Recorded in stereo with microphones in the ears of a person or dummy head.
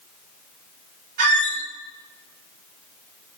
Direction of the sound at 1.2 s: 45° right (ahead or behind).